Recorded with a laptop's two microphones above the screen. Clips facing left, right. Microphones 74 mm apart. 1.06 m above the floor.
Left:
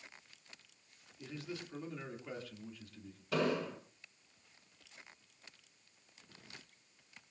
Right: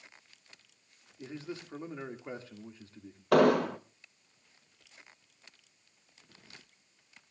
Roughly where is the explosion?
Right.